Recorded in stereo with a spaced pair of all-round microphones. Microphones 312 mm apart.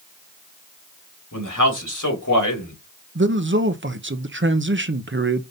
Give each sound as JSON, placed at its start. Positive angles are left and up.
{"t": 1.3, "sound": "a man speaking", "side_deg": 75, "distance_m": 3.0}
{"t": 3.1, "sound": "a man speaking", "side_deg": -40, "distance_m": 0.7}